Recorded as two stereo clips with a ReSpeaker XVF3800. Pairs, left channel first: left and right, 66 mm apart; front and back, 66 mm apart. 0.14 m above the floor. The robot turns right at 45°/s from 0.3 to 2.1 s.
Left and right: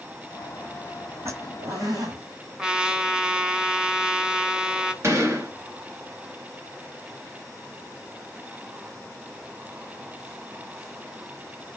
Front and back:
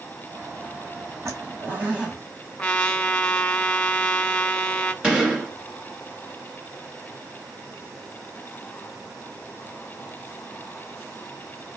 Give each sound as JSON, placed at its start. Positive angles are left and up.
{"t": 1.2, "sound": "a zipper", "azimuth_deg": -135, "distance_m": 2.0}
{"t": 2.6, "sound": "a trumpet", "azimuth_deg": -35, "distance_m": 0.8}
{"t": 5.0, "sound": "a gunshot", "azimuth_deg": -105, "distance_m": 2.5}